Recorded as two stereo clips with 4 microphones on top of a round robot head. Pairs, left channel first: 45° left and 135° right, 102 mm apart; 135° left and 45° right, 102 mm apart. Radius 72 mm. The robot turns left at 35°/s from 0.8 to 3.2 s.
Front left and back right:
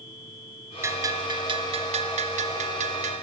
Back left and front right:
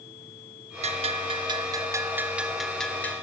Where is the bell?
70° right, 1.9 m; by 3.2 s 155° right, 1.9 m.